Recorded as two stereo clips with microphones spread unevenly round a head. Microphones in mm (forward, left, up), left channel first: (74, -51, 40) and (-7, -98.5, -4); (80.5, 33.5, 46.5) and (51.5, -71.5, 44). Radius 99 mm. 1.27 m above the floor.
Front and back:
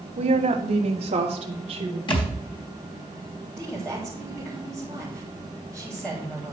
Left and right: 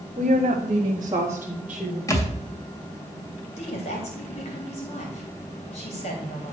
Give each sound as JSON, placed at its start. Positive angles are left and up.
{"t": 0.2, "sound": "a woman speaking", "azimuth_deg": -150, "distance_m": 1.6}
{"t": 2.1, "sound": "a thud", "azimuth_deg": 15, "distance_m": 2.5}
{"t": 3.6, "sound": "a woman speaking", "azimuth_deg": 120, "distance_m": 3.0}